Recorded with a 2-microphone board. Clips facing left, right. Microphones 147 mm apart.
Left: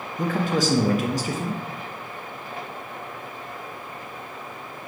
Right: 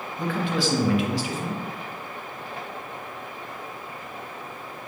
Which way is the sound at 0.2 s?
45° left (ahead or behind).